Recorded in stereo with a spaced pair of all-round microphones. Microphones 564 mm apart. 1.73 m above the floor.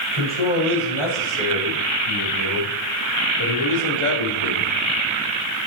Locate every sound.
0.1 s a man speaking: 75° left (ahead or behind), 8 m; by 4.7 s 65° left (ahead or behind), 3 m